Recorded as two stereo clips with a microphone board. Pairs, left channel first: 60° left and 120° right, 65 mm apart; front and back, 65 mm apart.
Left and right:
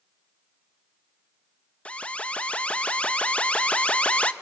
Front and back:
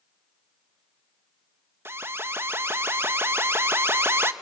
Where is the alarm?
130° left, 0.6 m.